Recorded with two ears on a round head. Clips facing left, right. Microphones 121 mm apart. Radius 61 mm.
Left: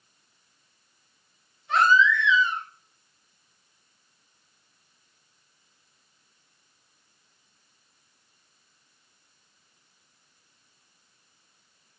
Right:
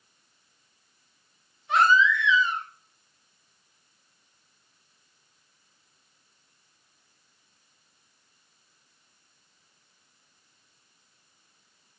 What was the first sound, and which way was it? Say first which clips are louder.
A baby crying: even; 10° right (ahead or behind).